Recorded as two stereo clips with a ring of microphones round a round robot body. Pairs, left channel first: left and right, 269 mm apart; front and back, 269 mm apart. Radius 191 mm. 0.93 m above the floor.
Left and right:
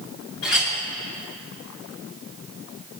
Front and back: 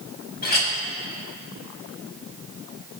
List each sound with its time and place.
0.4 s a clink: 55° left, 5 m